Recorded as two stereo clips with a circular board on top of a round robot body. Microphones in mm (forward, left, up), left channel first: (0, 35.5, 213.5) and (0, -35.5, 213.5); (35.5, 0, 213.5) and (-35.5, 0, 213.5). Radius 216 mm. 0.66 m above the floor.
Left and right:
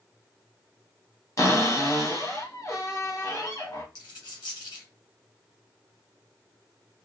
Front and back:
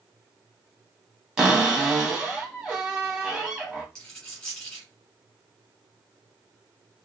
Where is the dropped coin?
75° left, 1.4 m.